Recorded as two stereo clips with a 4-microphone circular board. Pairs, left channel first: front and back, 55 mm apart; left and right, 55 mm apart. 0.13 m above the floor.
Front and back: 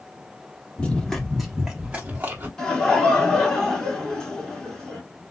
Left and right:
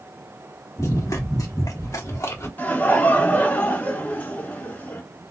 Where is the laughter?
70° left, 1.7 m.